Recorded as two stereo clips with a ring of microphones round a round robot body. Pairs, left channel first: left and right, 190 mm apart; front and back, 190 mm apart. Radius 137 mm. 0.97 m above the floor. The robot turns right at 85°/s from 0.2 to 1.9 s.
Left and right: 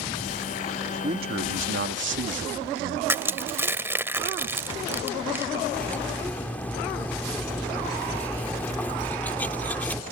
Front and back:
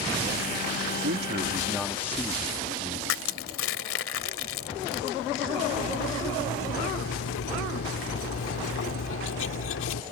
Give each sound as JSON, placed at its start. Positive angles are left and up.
{"t": 1.0, "sound": "a man speaking", "azimuth_deg": -155}
{"t": 3.1, "sound": "crushing", "azimuth_deg": -10}
{"t": 5.7, "sound": "cutlery clinking", "azimuth_deg": 10}